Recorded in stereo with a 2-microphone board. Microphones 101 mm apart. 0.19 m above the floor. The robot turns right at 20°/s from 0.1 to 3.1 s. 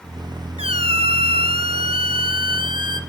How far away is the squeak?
About 0.5 m.